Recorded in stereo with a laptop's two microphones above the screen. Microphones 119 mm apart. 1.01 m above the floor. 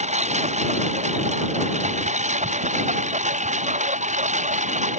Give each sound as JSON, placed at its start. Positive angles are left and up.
{"t": 0.0, "sound": "a lawn mower", "side_deg": -75}